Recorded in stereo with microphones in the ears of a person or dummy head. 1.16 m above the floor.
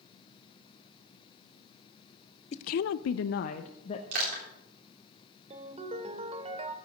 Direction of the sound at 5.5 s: 35° right (ahead or behind).